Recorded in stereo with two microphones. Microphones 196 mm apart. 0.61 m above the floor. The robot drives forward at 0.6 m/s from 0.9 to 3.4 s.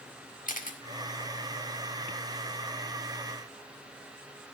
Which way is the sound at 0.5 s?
40° left (ahead or behind).